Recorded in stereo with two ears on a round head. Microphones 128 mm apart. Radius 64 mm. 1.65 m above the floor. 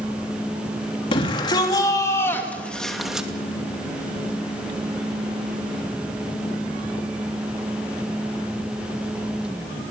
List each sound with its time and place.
1.1 s a shout: 35° left (ahead or behind), 3 m; by 3.3 s 5° right (ahead or behind), 2.5 m